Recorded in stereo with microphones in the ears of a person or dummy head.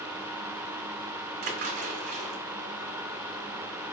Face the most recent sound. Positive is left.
turn(degrees=-50)  # may be behind; listen again after turning